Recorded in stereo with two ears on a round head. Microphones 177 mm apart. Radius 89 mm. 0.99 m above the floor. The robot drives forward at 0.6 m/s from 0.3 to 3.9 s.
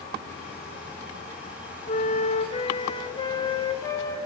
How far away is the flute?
About 0.9 m.